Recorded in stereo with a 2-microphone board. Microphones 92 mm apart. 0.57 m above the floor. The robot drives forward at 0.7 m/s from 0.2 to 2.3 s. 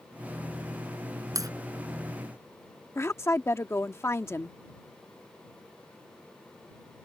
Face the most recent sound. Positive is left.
turn(degrees=30)  # may be behind; listen again after turning